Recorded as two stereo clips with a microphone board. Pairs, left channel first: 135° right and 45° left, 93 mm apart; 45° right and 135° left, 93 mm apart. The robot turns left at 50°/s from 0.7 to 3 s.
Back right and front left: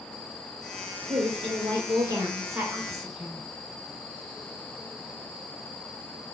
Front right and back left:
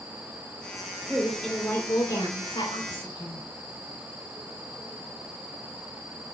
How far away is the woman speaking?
About 2 m.